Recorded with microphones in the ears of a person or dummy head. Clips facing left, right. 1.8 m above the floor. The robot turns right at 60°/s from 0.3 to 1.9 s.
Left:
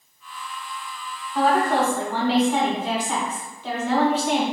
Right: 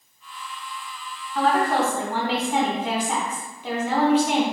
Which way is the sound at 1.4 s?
170° left.